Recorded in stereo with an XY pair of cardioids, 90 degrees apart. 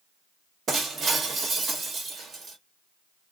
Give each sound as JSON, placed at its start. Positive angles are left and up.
{"t": 0.7, "sound": "breaking glass", "azimuth_deg": -55, "distance_m": 1.2}